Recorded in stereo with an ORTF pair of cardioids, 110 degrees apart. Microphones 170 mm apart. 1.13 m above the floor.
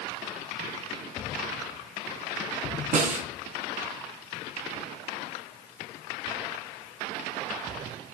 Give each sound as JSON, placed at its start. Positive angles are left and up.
{"t": 2.9, "sound": "a snare drum", "azimuth_deg": -50, "distance_m": 4.0}